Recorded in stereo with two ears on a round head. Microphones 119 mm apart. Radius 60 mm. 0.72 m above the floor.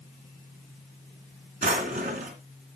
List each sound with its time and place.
1.6 s a drawer: 55° right (ahead or behind), 2.5 m